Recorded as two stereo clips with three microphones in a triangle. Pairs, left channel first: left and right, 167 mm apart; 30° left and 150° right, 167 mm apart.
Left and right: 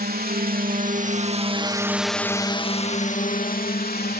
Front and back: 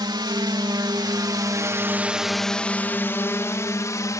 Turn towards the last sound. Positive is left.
turn(degrees=100)